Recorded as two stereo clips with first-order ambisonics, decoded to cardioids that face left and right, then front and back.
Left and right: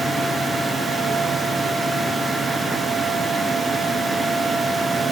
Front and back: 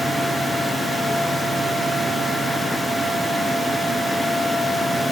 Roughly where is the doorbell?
No doorbell in this recording.